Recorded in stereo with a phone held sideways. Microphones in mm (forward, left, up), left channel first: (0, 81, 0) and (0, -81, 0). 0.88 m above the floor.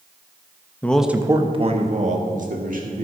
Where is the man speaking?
15° left (ahead or behind), 0.6 m; by 3.0 s 60° right (ahead or behind), 1.9 m.